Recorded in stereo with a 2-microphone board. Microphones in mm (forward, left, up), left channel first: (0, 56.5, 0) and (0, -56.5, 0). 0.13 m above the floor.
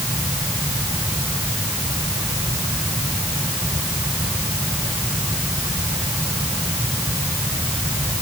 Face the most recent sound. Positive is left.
No sound to turn to.